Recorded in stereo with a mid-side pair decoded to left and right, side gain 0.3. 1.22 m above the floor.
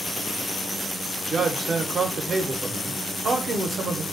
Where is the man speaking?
65° right, 0.5 m.